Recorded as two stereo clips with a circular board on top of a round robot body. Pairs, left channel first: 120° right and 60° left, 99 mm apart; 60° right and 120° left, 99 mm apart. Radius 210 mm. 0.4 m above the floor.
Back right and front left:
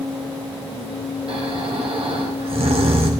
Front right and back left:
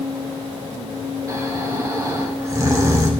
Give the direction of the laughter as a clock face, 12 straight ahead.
I don't hear laughter.